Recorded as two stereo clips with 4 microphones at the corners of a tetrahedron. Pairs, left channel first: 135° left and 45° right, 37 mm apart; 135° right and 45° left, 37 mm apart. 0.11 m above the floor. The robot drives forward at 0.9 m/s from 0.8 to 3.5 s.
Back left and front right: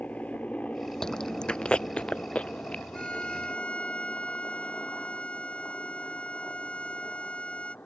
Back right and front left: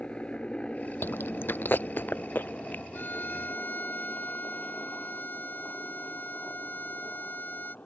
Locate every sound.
0.0 s a helicopter: 170° left; by 7.8 s straight behind
1.0 s chewing: 150° right; by 2.8 s 170° right
2.9 s a violin: 165° right